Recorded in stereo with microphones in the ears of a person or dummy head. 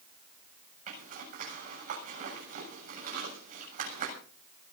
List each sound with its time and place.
0.9 s a zipper: 45° right (ahead or behind), 7.5 m